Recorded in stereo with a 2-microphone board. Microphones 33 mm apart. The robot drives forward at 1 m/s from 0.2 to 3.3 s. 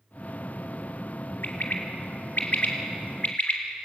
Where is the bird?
70° left (ahead or behind), 3 m; by 3.9 s 55° left (ahead or behind), 3 m.